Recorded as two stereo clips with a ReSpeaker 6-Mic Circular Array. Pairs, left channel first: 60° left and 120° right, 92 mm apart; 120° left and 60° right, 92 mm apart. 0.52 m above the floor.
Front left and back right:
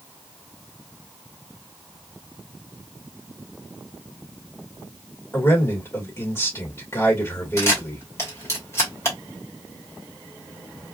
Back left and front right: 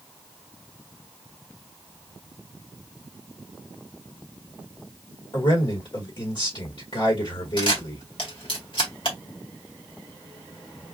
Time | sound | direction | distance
5.3 | a man speaking | 115° left | 2 m
7.6 | a camera shutter | 115° left | 1.9 m